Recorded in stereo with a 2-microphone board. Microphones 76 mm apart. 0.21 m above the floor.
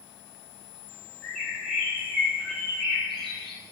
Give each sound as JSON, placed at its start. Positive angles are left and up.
{"t": 1.2, "sound": "a bird", "side_deg": 5, "distance_m": 5.5}